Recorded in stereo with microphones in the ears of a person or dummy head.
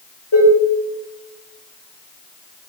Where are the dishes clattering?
75° left (ahead or behind), 4.5 m.